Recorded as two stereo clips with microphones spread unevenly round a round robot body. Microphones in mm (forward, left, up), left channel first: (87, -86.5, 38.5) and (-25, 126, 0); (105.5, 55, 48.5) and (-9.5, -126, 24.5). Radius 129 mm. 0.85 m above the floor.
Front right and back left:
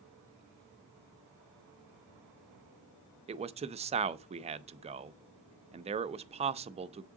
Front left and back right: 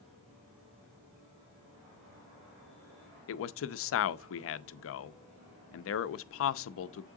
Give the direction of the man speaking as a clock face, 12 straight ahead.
10 o'clock.